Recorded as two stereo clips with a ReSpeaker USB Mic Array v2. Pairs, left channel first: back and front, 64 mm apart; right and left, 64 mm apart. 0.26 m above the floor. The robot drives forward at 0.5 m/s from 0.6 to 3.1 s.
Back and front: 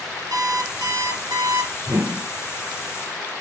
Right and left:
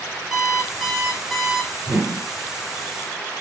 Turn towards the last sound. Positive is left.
turn(degrees=20)